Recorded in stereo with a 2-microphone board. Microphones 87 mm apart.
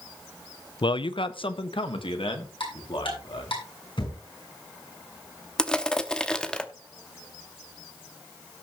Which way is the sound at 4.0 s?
65° left (ahead or behind).